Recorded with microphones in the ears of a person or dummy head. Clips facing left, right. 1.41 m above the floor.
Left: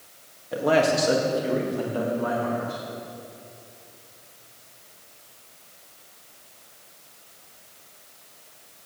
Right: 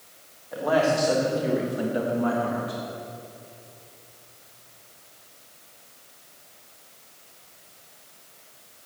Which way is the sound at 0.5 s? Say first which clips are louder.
Left 1 dB; 40° left (ahead or behind).